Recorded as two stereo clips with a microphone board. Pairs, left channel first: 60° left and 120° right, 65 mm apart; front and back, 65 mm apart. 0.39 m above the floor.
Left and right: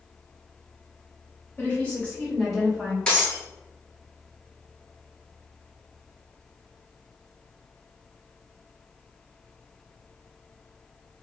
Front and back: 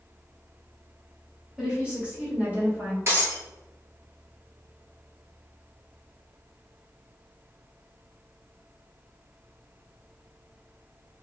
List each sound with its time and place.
1.6 s a woman speaking: 110° left, 1.7 m; by 3.0 s straight behind, 1.5 m
3.1 s breaking glass: 135° left, 1.0 m